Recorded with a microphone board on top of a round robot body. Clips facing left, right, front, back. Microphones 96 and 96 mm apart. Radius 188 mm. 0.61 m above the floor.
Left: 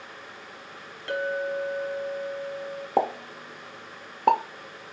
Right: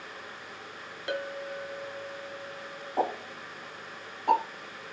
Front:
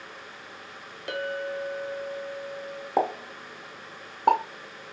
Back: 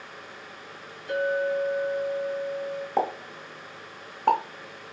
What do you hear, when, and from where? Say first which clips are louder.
1.1 s a clink: left 7 dB, back 6 dB; 15° right, 1.3 m
3.0 s a pop: left 4 dB, front 2 dB; 80° left, 0.6 m